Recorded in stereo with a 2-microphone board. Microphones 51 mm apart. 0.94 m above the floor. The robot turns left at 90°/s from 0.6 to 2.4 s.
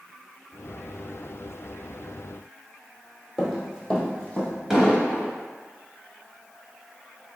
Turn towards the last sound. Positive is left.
turn(degrees=-10)  # may be behind; listen again after turning